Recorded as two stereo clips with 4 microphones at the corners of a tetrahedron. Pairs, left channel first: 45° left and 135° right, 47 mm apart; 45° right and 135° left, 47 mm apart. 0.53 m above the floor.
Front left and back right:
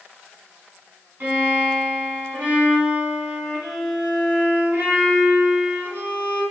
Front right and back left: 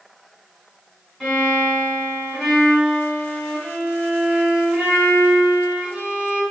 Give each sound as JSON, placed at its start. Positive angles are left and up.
{"t": 1.2, "sound": "a violin", "azimuth_deg": -130, "distance_m": 1.7}